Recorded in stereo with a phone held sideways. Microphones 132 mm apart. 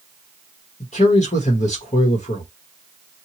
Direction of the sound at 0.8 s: 65° left (ahead or behind).